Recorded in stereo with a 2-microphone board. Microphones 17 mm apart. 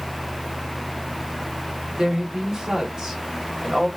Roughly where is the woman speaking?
Right.